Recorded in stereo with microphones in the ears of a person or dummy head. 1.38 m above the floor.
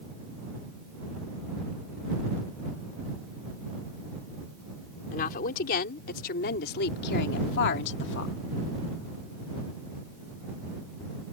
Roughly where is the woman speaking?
Left.